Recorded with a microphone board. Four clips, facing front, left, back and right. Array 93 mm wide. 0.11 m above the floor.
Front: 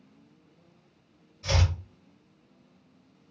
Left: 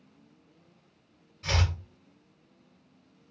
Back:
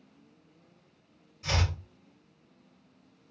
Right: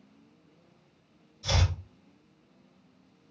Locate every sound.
1.4 s chopping: 100° left, 2 m